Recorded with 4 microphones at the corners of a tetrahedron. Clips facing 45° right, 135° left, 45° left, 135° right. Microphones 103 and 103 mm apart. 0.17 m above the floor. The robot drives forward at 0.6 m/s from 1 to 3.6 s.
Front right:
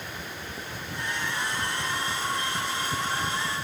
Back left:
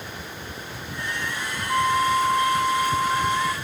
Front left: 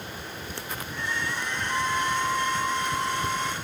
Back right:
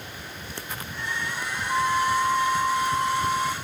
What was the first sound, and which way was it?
A flute, 155° left.